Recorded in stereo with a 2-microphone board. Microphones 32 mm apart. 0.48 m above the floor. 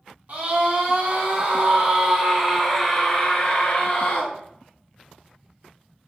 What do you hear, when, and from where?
0.3 s a scream: 55° right (ahead or behind), 1.9 m; by 4.3 s 40° left (ahead or behind), 1.3 m